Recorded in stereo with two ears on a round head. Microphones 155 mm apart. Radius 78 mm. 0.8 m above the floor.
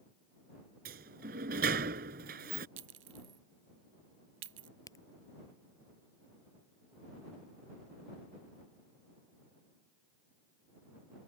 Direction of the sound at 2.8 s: 90° right.